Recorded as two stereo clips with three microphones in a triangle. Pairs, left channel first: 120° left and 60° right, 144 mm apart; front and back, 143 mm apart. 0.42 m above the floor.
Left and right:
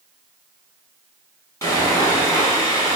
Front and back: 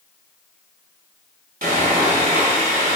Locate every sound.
1.6 s sawing: 175° right, 1.0 m